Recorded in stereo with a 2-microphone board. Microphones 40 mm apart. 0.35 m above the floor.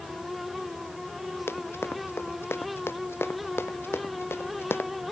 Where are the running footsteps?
85° left; by 4.9 s 90° left.